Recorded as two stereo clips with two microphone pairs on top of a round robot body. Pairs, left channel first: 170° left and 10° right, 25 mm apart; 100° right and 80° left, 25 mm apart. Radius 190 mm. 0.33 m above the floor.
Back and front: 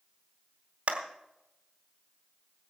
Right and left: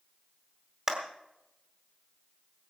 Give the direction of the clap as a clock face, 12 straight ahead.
12 o'clock.